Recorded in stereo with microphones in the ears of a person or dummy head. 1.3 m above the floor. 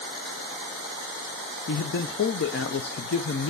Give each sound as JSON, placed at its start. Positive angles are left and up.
{"t": 1.7, "sound": "a man speaking", "side_deg": 50, "distance_m": 0.5}